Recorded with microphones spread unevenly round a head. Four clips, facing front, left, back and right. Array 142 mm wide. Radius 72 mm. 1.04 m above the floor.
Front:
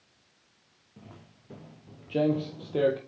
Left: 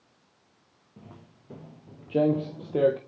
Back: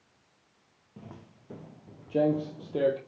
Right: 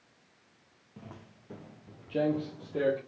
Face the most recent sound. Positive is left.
turn(degrees=90)